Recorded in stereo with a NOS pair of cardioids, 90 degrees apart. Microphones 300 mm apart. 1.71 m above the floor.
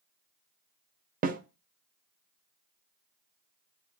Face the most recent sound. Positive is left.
turn(degrees=-30)